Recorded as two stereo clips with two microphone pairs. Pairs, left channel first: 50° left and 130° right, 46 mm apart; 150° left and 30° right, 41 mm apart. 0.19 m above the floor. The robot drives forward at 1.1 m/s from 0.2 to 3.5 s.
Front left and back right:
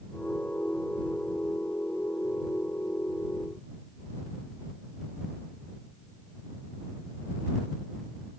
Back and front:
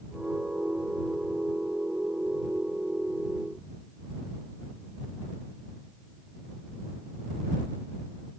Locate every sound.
Only background noise.